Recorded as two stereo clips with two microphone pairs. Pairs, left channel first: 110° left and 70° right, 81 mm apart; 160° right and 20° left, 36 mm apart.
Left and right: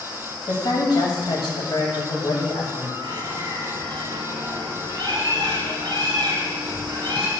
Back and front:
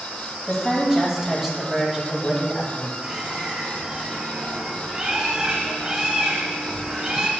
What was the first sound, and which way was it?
A woman speaking, 95° left.